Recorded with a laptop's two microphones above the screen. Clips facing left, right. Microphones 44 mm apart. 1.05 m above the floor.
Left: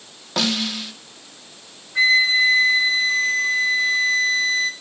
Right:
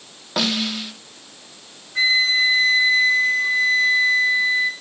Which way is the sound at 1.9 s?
10° left (ahead or behind).